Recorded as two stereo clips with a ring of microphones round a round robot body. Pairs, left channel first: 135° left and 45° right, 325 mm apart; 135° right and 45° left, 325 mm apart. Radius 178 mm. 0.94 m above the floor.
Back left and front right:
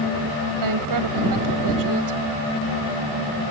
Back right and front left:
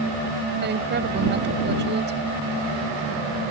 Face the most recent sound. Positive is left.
turn(degrees=-15)